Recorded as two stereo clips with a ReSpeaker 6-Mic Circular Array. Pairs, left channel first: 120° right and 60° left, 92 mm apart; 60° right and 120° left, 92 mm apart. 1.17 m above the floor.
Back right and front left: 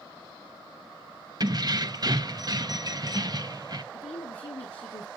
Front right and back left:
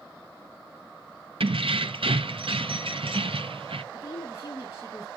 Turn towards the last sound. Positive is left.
turn(degrees=-120)